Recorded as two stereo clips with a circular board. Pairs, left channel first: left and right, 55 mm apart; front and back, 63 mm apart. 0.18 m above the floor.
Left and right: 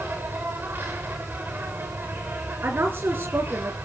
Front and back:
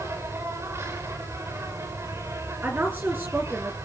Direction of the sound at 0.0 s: 140° right.